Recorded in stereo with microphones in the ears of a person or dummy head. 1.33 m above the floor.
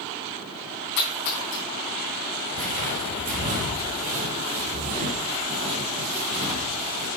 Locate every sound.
1.0 s a splash: 65° left (ahead or behind), 4 m
2.5 s footsteps: 45° right (ahead or behind), 1.8 m; by 7.1 s 30° right (ahead or behind), 3 m